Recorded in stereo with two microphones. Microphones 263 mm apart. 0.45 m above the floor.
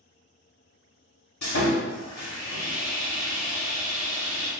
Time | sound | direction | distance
1.4 | sawing | 80° left | 0.9 m